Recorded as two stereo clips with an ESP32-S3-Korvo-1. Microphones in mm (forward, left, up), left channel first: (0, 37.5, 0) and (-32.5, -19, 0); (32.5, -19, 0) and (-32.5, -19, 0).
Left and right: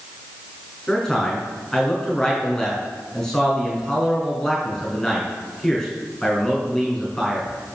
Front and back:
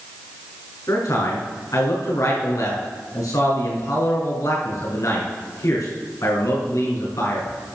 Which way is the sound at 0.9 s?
25° right.